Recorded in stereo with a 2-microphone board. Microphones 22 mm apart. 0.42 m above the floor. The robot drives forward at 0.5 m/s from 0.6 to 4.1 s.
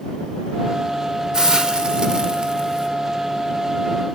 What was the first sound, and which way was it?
A hiss, 30° right (ahead or behind).